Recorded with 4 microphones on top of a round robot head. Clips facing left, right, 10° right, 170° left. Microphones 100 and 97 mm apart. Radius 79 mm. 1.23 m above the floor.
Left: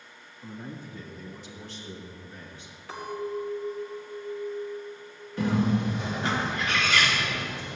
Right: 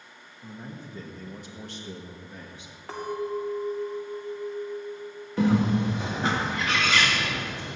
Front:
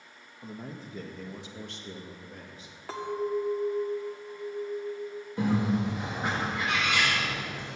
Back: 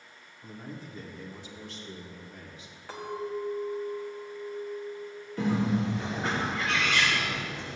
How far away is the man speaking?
About 1.8 m.